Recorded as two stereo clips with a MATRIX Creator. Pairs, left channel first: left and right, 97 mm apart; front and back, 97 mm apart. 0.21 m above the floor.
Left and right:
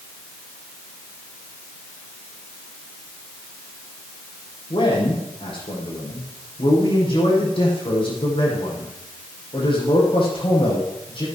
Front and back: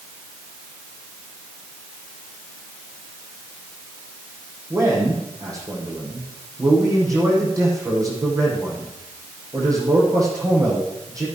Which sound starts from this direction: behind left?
A man speaking, at 4.7 s.